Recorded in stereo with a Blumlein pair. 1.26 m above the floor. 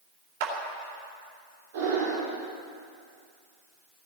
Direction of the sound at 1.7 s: 55° right.